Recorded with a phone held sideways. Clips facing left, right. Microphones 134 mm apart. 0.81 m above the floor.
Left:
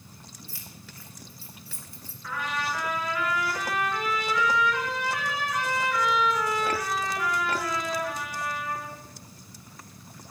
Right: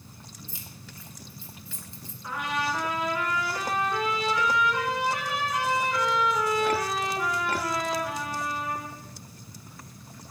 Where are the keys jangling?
20° right (ahead or behind), 2.5 m.